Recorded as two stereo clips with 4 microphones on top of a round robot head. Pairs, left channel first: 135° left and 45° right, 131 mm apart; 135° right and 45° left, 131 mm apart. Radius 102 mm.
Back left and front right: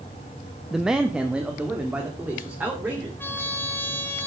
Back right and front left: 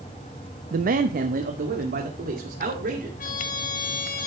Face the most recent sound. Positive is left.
turn(degrees=-145)